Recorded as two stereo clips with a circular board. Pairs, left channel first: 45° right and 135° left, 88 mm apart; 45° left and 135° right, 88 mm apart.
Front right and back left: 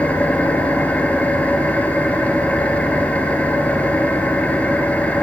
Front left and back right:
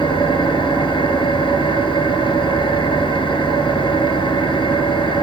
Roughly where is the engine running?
Ahead left.